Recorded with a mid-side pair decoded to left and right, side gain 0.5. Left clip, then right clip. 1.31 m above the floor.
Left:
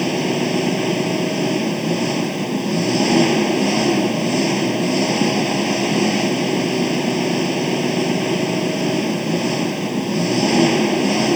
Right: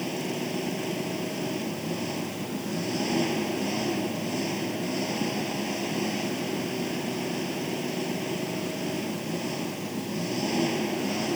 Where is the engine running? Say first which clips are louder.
Left 11 dB; 60° left.